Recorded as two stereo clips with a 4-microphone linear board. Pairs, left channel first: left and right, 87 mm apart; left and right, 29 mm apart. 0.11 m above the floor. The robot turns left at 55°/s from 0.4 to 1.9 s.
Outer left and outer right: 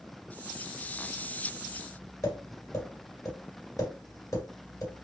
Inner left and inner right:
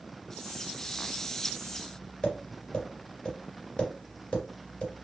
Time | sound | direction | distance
2.2 | tapping | 35° left (ahead or behind) | 1.8 m